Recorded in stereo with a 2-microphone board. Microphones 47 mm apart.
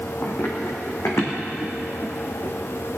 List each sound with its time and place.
0.2 s running footsteps: 70° left (ahead or behind), 3.5 m; by 2.5 s 65° left (ahead or behind), 5 m